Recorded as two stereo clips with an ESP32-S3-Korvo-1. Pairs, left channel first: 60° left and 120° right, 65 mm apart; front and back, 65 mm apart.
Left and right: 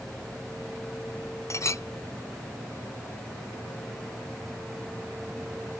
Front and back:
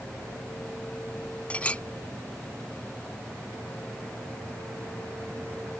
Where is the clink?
65° left.